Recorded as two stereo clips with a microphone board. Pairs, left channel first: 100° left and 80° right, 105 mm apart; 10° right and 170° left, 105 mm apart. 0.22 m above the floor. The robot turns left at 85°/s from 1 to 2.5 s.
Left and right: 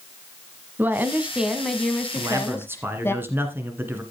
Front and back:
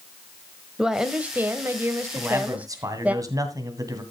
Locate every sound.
0.8 s a woman speaking: 115° right, 1.2 m; by 3.1 s 115° left, 1.2 m
2.1 s a man speaking: 115° right, 2 m; by 4.0 s 145° right, 2 m